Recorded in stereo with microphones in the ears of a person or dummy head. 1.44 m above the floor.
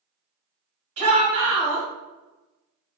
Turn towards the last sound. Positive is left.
turn(degrees=-40)  # may be behind; listen again after turning